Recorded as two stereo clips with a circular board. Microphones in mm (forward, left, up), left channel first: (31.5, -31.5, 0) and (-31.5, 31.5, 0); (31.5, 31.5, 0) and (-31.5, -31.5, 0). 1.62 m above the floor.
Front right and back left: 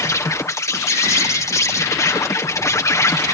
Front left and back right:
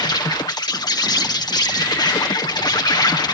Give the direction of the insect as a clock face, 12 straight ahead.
12 o'clock.